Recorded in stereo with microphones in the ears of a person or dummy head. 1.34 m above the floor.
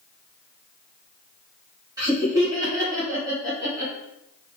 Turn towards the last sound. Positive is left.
turn(degrees=-20)  # may be behind; listen again after turning